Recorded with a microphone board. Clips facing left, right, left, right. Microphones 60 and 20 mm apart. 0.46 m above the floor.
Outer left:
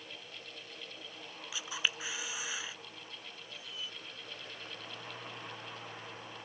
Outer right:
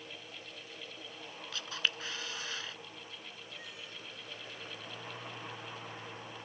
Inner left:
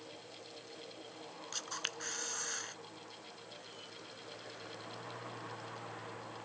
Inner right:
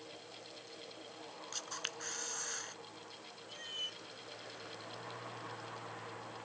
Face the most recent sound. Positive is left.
turn(degrees=-55)  # may be behind; listen again after turning